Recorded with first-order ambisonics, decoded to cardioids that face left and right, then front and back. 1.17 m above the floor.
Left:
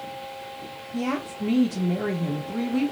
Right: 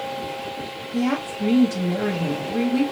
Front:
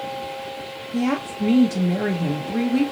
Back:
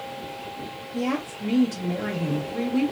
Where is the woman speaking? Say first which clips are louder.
Right 4 dB, front 4 dB; 25° right, 0.9 m.